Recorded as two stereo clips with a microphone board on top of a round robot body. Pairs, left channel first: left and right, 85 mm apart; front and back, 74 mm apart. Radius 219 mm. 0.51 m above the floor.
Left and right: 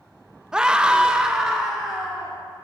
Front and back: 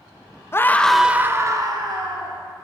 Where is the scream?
15° right, 0.8 m; by 2.4 s 175° right, 1.3 m.